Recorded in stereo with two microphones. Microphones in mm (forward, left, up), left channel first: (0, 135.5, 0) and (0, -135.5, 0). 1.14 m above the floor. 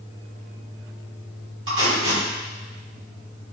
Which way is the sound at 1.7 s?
45° right (ahead or behind).